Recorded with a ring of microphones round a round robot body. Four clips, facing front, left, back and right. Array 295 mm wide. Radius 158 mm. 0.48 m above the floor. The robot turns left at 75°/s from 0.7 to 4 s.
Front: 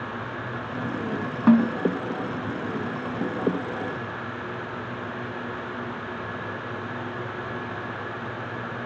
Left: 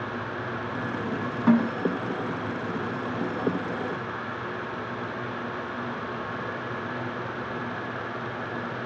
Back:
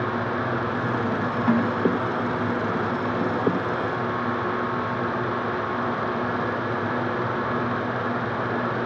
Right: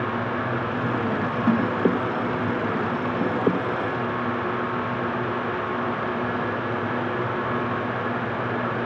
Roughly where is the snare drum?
Ahead.